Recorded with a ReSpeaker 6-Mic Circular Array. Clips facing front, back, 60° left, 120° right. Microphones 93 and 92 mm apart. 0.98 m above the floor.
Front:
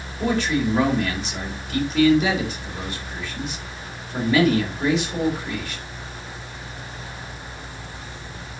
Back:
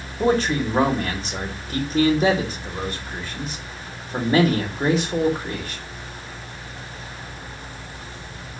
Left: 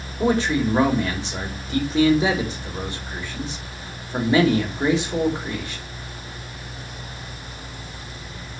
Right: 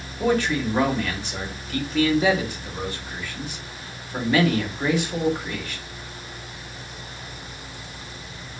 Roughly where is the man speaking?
Behind left.